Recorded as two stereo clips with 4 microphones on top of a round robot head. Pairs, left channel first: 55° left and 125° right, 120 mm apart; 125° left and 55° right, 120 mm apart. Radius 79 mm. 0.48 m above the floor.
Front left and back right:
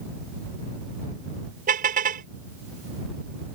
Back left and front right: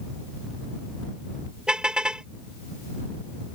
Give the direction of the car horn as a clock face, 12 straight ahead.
5 o'clock.